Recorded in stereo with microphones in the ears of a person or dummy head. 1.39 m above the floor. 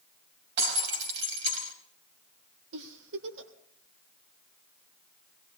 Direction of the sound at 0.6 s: 65° right (ahead or behind).